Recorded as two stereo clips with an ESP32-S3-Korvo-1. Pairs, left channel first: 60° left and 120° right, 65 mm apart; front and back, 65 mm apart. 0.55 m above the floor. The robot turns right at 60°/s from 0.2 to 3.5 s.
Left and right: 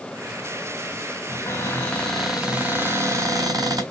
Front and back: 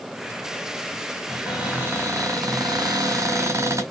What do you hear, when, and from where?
1.3 s a cupboard door: 90° left, 3 m; by 3.8 s 135° right, 3 m